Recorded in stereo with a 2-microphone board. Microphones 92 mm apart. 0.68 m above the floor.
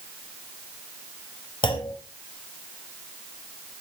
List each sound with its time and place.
1.6 s a clunk: 60° left (ahead or behind), 3.5 m